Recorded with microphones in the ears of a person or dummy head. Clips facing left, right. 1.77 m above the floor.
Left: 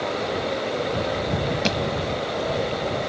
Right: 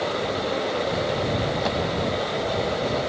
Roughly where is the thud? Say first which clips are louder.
Left 1 dB; left.